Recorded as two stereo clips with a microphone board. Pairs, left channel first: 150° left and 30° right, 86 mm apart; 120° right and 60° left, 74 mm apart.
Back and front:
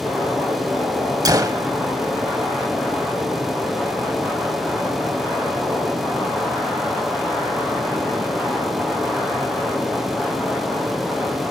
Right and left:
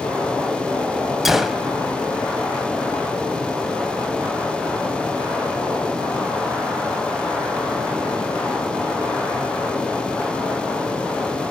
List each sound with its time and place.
1.2 s a gunshot: 25° right, 0.8 m